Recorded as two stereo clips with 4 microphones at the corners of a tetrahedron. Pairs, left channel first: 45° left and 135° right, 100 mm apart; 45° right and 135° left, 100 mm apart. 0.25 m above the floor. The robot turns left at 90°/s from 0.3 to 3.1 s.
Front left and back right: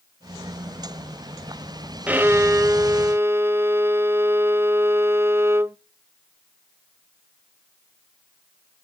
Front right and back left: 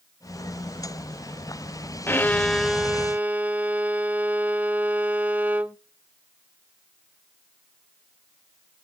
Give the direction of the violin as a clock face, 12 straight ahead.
3 o'clock.